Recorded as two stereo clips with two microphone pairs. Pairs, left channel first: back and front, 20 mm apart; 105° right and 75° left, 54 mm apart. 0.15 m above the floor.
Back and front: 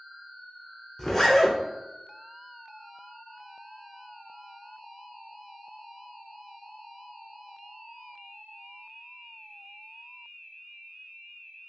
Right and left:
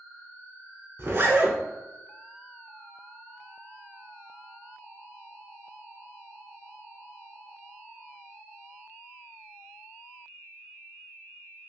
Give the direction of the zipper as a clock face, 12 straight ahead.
8 o'clock.